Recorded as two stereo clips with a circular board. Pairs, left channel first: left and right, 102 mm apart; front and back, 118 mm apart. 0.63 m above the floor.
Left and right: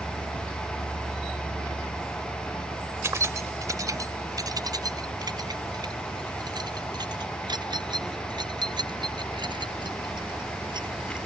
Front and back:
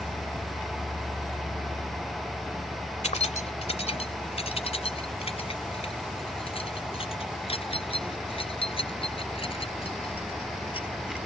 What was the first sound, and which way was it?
Keys jangling, 25° right.